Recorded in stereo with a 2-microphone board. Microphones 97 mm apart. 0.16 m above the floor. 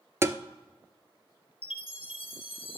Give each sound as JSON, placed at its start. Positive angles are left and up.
{"t": 0.2, "sound": "tapping", "side_deg": -30, "distance_m": 0.5}
{"t": 1.6, "sound": "a chime", "side_deg": 75, "distance_m": 0.9}